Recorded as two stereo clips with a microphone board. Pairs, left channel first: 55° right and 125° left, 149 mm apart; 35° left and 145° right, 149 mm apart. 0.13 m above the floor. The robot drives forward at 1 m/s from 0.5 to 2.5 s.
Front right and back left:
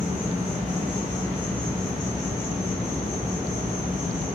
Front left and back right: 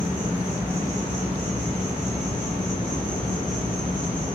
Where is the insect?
65° right, 1.2 m; by 4.4 s 155° right, 2.0 m.